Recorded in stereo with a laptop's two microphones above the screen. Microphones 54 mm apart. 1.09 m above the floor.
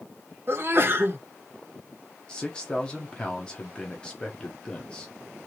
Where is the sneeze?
45° right (ahead or behind), 1.3 m.